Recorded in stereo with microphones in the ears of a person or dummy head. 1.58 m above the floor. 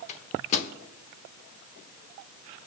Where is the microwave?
40° left (ahead or behind), 1.2 m.